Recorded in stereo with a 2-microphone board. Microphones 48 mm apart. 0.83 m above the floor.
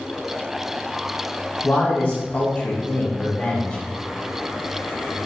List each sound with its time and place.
1.6 s a man speaking: 30° left (ahead or behind), 0.7 m; by 3.8 s 20° left (ahead or behind), 1.0 m